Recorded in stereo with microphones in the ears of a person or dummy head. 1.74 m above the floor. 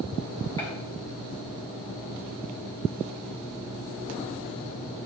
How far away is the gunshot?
About 1.8 m.